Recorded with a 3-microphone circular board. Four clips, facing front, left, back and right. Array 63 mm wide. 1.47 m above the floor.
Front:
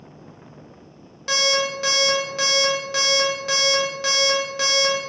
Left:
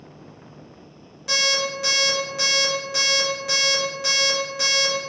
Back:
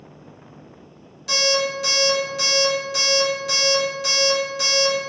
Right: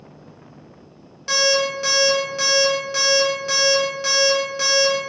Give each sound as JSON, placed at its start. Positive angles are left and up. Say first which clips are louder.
{"t": 1.3, "sound": "an alarm clock", "louder": "right 5 dB, even", "azimuth_deg": -25, "distance_m": 0.9}